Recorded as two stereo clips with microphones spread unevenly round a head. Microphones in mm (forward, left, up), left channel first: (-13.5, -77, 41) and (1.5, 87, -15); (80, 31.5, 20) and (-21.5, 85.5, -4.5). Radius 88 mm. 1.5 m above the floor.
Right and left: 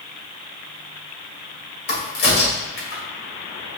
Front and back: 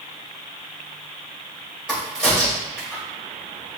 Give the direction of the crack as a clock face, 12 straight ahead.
4 o'clock.